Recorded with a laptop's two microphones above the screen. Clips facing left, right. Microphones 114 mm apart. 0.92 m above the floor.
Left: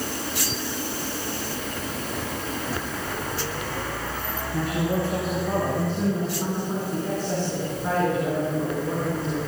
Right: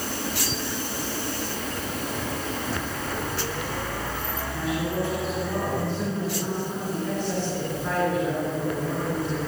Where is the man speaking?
70° left (ahead or behind), 5 m; by 9.4 s 25° left (ahead or behind), 9 m.